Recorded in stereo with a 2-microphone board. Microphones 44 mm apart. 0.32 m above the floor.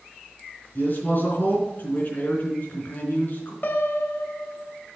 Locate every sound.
0.8 s a man speaking: 45° left (ahead or behind), 3.5 m
3.6 s a piano: 40° left (ahead or behind), 0.8 m